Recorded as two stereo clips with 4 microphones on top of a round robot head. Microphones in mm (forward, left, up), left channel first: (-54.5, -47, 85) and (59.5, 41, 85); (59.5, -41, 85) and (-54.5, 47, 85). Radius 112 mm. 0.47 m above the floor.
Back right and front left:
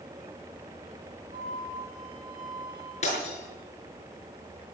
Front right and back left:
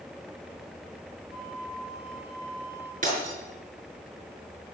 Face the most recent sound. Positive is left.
turn(degrees=175)